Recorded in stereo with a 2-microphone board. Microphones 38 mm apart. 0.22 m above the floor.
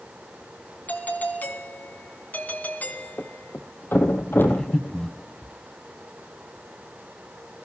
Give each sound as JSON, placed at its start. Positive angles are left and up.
{"t": 0.9, "sound": "a doorbell", "side_deg": 50, "distance_m": 3.0}
{"t": 3.2, "sound": "a thud", "side_deg": 80, "distance_m": 2.5}
{"t": 4.5, "sound": "breathing", "side_deg": 20, "distance_m": 2.0}